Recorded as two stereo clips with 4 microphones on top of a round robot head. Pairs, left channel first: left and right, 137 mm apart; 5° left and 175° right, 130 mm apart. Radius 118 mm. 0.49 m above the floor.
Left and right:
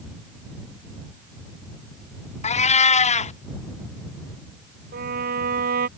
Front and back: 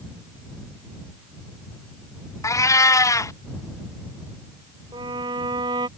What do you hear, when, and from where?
2.4 s a cat meowing: 65° left
4.9 s a violin: 110° right